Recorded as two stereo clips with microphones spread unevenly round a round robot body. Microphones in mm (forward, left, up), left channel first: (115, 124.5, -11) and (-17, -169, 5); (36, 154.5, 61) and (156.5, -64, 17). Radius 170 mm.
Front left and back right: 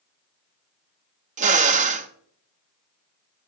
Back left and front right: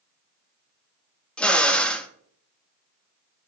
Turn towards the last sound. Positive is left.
turn(degrees=-130)